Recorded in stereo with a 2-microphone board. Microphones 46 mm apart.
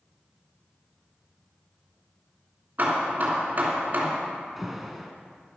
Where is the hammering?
40° right (ahead or behind), 3 m.